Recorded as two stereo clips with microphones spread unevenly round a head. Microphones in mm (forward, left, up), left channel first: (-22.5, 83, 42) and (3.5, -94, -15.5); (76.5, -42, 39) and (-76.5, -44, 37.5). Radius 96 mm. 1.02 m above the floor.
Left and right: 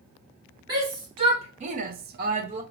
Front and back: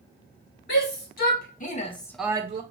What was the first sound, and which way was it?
A shout, 15° right.